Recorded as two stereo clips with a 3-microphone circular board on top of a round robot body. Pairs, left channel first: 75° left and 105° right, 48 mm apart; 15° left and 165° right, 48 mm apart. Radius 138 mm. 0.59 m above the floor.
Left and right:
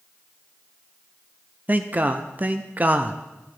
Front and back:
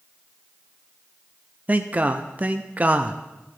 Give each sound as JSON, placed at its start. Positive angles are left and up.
{"t": 1.7, "sound": "a man speaking", "azimuth_deg": -130, "distance_m": 0.8}